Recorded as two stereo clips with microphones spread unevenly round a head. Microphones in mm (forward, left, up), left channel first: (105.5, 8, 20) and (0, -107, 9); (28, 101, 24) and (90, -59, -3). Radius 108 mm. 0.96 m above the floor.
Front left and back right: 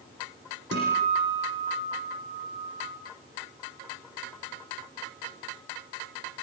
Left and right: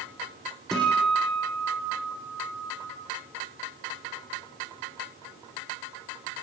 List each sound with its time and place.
0.7 s a guitar: 160° right, 9 m